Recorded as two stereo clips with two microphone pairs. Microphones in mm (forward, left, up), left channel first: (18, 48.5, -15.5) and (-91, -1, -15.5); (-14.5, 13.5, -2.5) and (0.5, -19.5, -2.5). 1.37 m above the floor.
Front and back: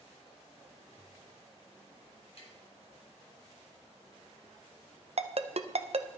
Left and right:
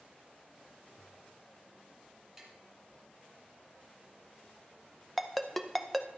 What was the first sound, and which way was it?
Tapping, 15° left.